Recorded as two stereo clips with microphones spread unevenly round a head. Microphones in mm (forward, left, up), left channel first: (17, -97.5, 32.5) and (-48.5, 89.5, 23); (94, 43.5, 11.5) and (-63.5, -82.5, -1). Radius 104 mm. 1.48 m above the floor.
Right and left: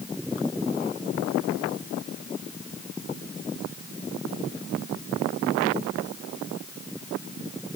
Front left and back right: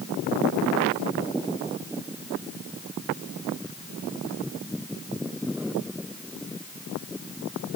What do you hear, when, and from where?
Only background noise.